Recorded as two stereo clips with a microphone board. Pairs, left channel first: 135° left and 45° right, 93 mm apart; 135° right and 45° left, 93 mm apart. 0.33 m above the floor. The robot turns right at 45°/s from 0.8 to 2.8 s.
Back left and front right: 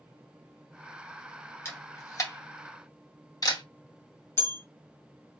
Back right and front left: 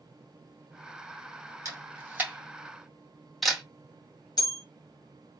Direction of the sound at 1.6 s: 85° left.